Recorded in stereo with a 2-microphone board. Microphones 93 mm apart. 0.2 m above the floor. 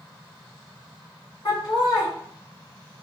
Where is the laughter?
45° left (ahead or behind), 1.9 m.